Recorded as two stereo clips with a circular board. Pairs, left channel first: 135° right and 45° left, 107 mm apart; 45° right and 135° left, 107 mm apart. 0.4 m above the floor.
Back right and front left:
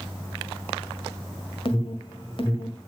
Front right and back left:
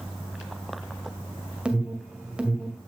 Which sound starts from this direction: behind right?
An alarm, at 1.6 s.